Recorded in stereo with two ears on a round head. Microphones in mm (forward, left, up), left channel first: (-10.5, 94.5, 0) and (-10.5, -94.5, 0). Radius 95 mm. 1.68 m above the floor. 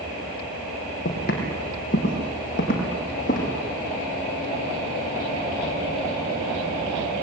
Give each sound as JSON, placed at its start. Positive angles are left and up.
{"t": 1.1, "sound": "footsteps", "side_deg": 40, "distance_m": 4.5}